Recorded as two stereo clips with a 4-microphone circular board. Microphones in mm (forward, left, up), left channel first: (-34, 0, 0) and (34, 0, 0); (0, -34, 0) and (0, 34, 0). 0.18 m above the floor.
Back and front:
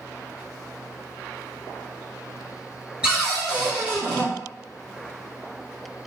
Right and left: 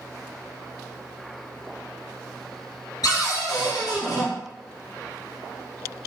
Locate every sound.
3.0 s a cupboard door: 75° right, 1.4 m